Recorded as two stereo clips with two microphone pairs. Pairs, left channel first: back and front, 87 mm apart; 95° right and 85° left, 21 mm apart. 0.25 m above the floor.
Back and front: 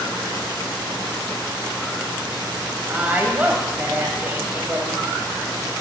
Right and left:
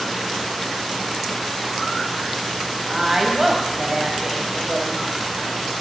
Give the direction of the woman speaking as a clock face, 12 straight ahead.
11 o'clock.